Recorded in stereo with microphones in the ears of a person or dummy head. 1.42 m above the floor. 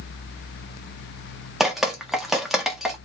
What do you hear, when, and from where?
1.6 s dripping: centre (ahead or behind), 0.5 m